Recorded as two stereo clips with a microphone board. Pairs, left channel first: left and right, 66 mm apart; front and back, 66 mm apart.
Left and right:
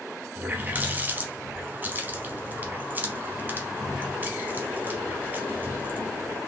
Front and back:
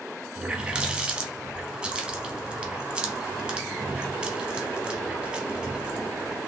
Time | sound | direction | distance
0.3 | a running tap | 120° right | 0.9 m